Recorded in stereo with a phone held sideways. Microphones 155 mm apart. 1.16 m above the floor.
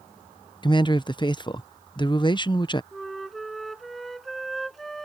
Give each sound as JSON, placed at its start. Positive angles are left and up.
{"t": 0.6, "sound": "a man speaking", "side_deg": 30}
{"t": 2.9, "sound": "a flute", "side_deg": 0}